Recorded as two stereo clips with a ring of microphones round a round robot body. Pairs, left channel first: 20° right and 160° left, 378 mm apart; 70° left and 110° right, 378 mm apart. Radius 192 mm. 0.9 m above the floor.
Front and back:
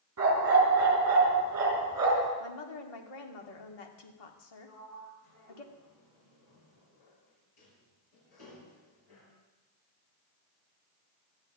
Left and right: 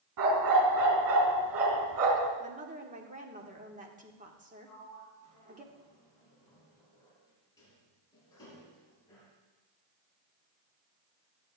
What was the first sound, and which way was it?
A dog barking, 150° right.